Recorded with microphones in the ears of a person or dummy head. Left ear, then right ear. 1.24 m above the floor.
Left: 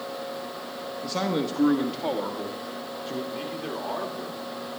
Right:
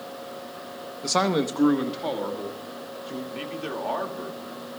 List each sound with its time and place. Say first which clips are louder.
1.0 s a man speaking: right 5 dB; 60° right (ahead or behind), 0.9 m; by 3.2 s 15° left (ahead or behind), 3 m
3.3 s a man speaking: even; 25° right (ahead or behind), 2 m